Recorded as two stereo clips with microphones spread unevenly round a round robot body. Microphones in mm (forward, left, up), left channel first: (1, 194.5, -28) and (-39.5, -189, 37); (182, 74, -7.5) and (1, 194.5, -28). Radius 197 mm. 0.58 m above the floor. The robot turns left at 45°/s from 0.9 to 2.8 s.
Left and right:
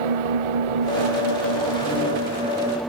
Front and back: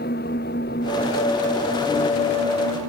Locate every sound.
0.0 s an engine running: 100° right; by 2.9 s 175° left